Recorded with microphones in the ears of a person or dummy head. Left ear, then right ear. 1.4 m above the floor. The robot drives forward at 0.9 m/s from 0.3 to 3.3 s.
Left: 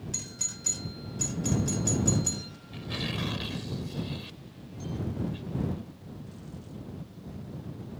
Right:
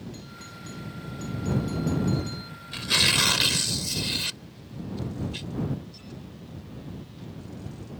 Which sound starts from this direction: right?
Tearing paper, at 2.7 s.